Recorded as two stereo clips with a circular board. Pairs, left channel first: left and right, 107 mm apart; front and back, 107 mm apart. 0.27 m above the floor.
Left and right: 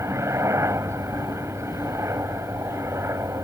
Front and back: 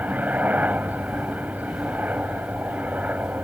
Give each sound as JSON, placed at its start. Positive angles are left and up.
{"t": 0.0, "sound": "a helicopter", "azimuth_deg": -120}